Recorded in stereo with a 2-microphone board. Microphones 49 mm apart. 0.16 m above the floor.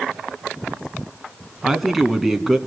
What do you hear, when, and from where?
1.6 s a man speaking: 5° right (ahead or behind), 1.7 m